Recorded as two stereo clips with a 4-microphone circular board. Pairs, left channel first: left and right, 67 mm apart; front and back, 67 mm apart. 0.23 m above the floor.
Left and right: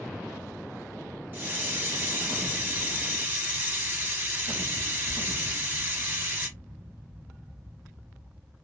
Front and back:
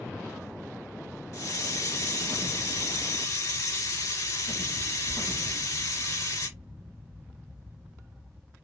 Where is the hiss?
30° right, 2 m.